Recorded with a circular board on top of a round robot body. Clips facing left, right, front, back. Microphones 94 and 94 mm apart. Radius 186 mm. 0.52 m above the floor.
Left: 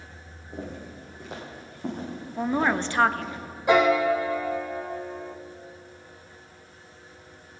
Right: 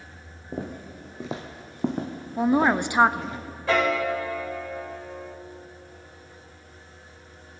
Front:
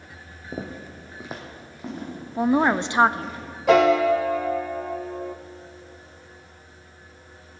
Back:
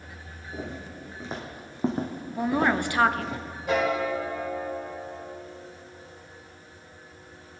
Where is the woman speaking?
35° right, 0.7 m.